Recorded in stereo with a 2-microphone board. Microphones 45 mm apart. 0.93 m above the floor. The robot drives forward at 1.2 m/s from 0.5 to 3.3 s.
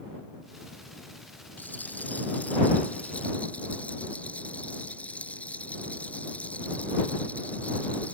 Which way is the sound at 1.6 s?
40° left (ahead or behind).